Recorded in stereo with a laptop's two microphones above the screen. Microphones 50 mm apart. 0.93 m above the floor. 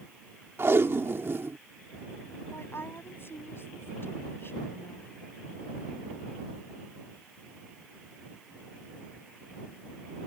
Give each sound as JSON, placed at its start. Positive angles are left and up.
{"t": 0.6, "sound": "tape being pulled", "side_deg": -55}
{"t": 2.5, "sound": "a woman speaking", "side_deg": 55}